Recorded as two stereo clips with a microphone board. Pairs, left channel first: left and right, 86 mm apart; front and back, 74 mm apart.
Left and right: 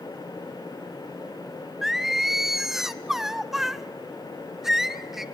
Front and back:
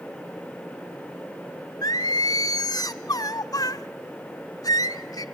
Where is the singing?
5° right, 0.6 m.